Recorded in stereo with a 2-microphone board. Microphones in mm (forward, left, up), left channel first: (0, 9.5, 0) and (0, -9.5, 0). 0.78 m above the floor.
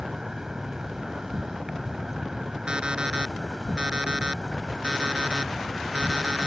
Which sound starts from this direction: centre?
An insect, at 0.0 s.